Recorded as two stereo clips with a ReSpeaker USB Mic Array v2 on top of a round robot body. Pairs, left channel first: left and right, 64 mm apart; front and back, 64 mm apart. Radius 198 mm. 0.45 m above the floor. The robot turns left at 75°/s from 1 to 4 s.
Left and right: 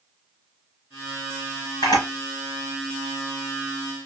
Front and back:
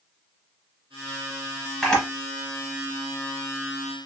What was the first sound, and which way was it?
A camera shutter, 90° left.